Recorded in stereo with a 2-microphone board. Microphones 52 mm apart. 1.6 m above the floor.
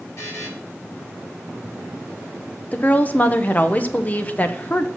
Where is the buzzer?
55° left (ahead or behind), 4 m.